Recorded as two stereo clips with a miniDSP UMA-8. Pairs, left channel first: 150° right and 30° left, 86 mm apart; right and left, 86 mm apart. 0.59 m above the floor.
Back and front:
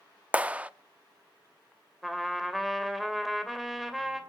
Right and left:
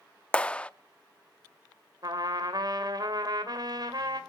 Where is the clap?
25° right, 0.5 m.